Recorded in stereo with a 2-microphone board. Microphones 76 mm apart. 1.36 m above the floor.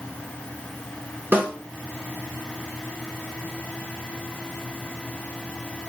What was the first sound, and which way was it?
A snare drum, 25° right (ahead or behind).